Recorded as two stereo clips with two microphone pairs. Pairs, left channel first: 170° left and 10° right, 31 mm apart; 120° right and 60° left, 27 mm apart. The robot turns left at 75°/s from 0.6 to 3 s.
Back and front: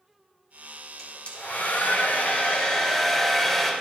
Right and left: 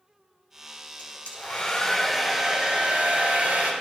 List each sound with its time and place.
1.0 s a hair dryer: 120° right, 6 m; by 3.7 s 90° left, 6 m